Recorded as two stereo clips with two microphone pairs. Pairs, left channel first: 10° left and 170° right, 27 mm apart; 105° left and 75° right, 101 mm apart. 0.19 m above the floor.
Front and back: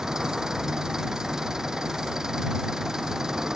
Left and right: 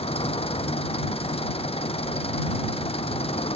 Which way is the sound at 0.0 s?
120° left.